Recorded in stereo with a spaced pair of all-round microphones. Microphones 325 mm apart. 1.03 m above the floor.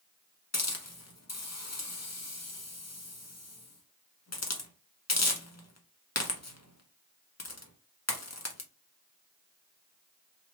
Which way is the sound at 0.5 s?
50° left (ahead or behind).